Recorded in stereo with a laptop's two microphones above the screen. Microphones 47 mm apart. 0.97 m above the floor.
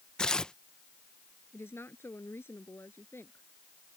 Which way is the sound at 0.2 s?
15° left (ahead or behind).